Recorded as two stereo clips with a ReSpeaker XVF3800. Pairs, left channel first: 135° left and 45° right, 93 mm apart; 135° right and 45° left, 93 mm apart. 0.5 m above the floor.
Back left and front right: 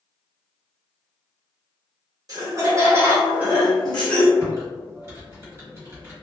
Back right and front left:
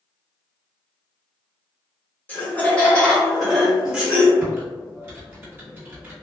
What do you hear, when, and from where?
2.3 s laughter: 70° right, 1.2 m; by 4.3 s 105° left, 0.9 m
4.4 s typing on a keyboard: 10° right, 1.5 m